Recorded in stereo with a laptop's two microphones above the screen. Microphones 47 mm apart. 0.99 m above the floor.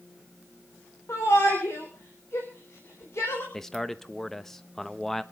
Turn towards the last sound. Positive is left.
turn(degrees=5)  # may be behind; listen again after turning